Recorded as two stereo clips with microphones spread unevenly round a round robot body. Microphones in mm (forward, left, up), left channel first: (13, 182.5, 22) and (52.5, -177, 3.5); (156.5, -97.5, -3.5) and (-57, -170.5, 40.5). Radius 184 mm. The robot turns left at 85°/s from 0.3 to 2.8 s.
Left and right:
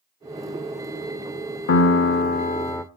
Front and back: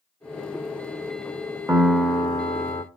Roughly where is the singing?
No singing in this recording.